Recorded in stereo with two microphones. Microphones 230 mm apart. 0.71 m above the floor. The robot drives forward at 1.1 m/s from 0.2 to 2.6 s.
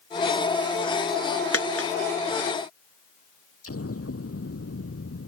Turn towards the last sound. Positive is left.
turn(degrees=85)